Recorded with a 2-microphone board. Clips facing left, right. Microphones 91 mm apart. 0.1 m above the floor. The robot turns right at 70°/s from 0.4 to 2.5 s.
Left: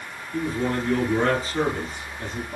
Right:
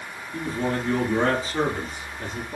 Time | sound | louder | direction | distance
0.3 | a man speaking | left 1 dB | centre (ahead or behind) | 1.4 m